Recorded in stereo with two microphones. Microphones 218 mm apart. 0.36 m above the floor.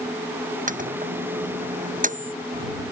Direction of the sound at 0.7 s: 35° right (ahead or behind).